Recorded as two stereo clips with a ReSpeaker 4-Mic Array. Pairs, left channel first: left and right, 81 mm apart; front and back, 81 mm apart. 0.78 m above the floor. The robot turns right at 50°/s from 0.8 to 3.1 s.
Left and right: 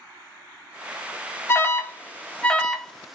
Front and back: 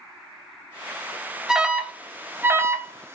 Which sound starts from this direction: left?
An alarm, at 1.5 s.